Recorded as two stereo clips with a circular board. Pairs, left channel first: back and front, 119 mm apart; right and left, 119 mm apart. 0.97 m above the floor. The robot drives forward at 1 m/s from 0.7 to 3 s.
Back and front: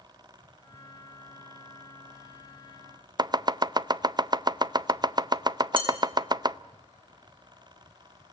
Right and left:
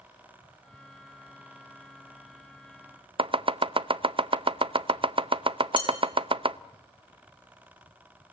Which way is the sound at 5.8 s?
45° right.